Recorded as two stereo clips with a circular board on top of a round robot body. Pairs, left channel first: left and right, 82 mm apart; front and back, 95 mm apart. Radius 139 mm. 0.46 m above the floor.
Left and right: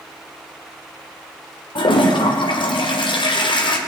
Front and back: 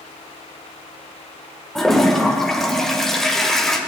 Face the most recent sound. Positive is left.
turn(degrees=85)